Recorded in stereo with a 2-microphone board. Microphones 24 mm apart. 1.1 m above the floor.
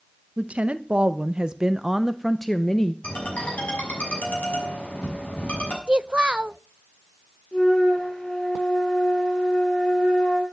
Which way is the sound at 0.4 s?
60° right (ahead or behind).